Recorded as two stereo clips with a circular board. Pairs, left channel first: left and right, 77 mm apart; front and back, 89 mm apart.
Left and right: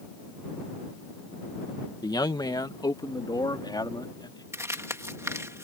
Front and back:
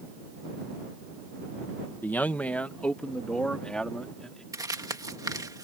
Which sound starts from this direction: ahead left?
A man speaking, at 2.0 s.